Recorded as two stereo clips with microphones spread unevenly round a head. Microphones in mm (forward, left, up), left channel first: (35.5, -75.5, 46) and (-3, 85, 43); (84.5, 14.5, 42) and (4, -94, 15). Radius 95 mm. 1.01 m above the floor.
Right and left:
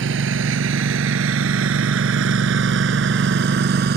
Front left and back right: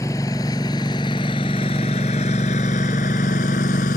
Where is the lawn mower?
125° left; by 4.0 s 80° left.